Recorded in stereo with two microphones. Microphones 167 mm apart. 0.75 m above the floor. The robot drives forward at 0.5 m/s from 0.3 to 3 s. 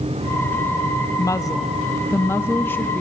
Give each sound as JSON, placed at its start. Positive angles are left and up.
{"t": 1.2, "sound": "a woman speaking", "side_deg": 20, "distance_m": 0.6}